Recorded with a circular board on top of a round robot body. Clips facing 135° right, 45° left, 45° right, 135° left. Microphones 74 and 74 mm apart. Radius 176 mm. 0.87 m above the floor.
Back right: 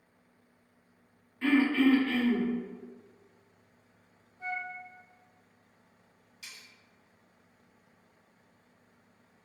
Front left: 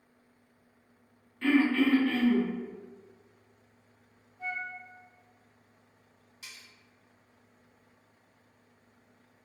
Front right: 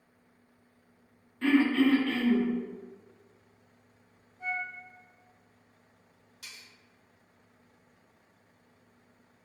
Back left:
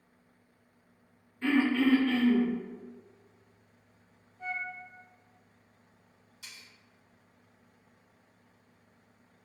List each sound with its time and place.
1.4 s throat clearing: 60° right, 1.2 m
4.4 s a flute: 40° left, 0.9 m
6.4 s cutlery clinking: 15° right, 1.0 m